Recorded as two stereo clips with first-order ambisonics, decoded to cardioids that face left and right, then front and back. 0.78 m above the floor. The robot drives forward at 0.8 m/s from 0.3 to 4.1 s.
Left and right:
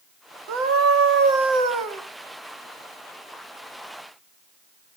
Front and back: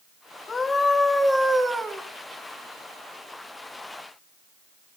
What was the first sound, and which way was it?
A scream, 70° right.